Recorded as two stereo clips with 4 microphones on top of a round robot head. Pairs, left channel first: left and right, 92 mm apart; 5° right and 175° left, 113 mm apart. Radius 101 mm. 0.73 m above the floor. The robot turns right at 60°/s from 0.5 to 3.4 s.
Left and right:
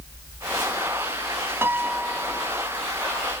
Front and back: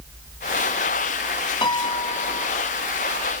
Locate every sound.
1.6 s a piano: 35° right; by 2.5 s 15° left